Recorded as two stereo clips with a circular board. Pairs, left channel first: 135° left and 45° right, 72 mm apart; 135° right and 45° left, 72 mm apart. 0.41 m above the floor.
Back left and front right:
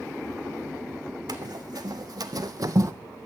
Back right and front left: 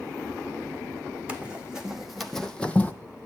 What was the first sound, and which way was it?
Running footsteps, 30° right.